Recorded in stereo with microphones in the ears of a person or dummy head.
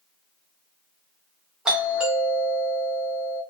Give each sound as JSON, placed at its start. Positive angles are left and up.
{"t": 1.6, "sound": "a doorbell", "side_deg": -5, "distance_m": 1.0}